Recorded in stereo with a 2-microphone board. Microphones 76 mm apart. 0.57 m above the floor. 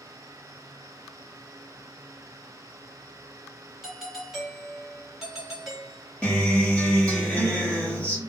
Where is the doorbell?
5° right (ahead or behind), 1.1 m.